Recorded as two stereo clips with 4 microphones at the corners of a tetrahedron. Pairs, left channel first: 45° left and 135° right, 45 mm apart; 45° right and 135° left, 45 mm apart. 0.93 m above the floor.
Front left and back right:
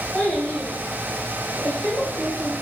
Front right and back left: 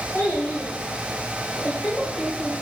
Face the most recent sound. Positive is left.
turn(degrees=20)